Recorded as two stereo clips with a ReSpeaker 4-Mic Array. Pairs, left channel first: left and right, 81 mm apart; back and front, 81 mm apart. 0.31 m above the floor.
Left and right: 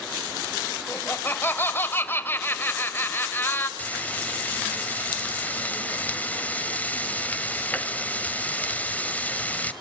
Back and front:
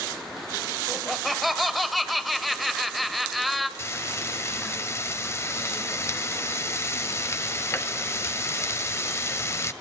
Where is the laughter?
90° left, 1.6 m.